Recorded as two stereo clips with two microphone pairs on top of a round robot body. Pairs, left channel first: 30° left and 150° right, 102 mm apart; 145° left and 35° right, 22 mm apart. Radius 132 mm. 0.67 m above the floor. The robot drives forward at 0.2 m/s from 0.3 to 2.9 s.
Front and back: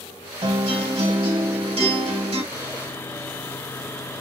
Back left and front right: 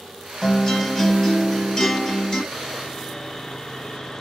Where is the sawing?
65° left, 0.7 m; by 4.2 s 75° left, 0.7 m.